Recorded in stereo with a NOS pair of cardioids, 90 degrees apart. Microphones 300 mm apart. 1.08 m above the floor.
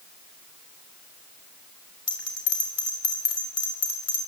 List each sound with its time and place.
2.1 s a bell: 55° left, 5.5 m